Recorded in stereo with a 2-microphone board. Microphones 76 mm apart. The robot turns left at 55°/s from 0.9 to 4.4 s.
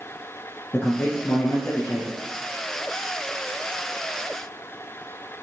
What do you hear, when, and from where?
0.7 s a man speaking: 125° left, 1.7 m; by 2.2 s 55° left, 1.7 m